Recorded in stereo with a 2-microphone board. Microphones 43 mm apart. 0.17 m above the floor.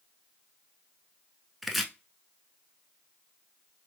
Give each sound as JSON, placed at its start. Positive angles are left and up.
{"t": 1.6, "sound": "chopping", "side_deg": -5, "distance_m": 0.5}